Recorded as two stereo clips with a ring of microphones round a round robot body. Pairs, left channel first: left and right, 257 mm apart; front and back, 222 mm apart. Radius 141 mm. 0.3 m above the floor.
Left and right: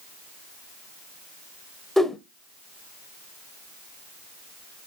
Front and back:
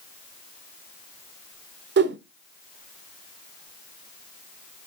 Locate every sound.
2.0 s a whoosh: straight behind, 0.7 m